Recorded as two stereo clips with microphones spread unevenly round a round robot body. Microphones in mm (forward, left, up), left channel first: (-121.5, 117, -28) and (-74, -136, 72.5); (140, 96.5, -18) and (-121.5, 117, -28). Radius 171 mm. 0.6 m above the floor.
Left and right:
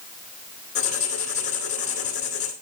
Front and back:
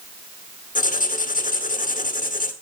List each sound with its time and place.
0.8 s writing: 55° left, 2.0 m